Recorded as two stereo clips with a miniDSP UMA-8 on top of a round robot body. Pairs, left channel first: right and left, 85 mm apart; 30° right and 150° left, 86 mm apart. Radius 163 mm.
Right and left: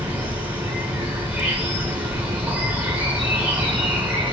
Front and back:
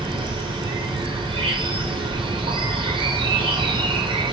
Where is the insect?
160° left, 6 m.